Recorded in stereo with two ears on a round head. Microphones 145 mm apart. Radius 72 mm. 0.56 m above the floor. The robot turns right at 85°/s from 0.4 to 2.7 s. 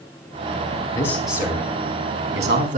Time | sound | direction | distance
0.9 | a man speaking | 155° left | 4.5 m